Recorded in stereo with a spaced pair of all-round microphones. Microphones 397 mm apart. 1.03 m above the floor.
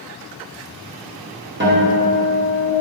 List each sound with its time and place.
1.6 s a guitar: 25° right (ahead or behind), 1.0 m